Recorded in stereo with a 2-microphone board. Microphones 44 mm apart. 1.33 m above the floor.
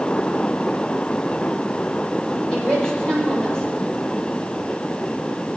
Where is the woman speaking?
15° left (ahead or behind), 5 m.